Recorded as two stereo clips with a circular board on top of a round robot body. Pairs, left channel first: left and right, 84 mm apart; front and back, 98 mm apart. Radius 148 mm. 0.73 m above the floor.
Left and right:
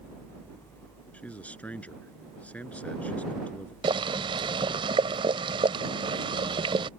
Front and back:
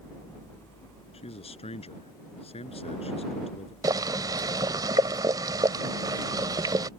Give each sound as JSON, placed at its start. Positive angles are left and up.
{"t": 1.1, "sound": "a man speaking", "azimuth_deg": 15}
{"t": 3.8, "sound": "boiling", "azimuth_deg": -125}